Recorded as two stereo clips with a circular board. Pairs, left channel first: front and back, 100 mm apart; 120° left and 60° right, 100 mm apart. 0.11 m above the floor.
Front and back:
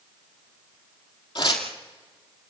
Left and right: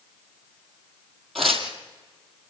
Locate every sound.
1.4 s tearing paper: 30° left, 2 m